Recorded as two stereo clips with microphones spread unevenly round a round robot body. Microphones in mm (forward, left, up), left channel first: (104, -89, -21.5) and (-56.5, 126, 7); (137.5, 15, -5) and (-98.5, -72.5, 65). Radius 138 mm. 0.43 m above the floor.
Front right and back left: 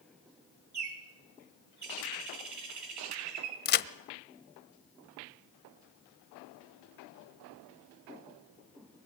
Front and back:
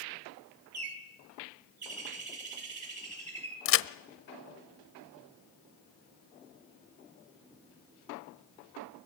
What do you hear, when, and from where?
0.7 s a bird: 160° left, 5 m
3.6 s a crack: 5° right, 1.0 m